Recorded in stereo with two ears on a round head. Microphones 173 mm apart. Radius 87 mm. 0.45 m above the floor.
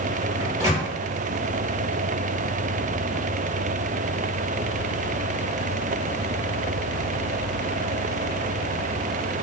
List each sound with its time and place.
0.4 s a microwave: 20° right (ahead or behind), 0.8 m